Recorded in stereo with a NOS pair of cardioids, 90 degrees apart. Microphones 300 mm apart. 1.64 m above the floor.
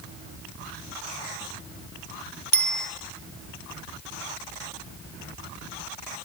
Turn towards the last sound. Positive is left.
turn(degrees=-35)